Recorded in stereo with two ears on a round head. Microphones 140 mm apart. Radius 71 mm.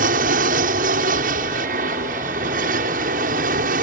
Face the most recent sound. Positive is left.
turn(degrees=-55)  # may be behind; listen again after turning